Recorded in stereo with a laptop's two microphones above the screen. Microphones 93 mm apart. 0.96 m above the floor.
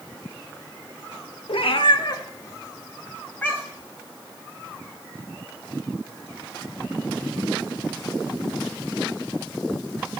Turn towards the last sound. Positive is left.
turn(degrees=15)  # may be behind; listen again after turning